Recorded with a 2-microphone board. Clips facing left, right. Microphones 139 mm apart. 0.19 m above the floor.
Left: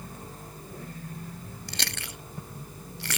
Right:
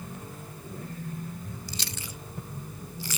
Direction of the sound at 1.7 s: 70° left (ahead or behind).